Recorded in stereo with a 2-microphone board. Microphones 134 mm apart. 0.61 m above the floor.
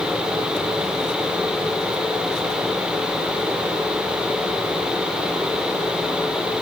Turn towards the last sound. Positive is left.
No sound to turn to.